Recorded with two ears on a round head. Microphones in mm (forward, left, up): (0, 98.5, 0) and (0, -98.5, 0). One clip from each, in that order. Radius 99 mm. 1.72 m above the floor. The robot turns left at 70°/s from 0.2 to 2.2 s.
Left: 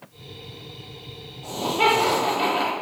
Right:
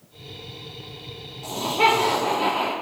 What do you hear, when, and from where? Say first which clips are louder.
1.4 s laughter: right 1 dB; 150° right, 4.5 m; by 2.7 s 155° left, 4.5 m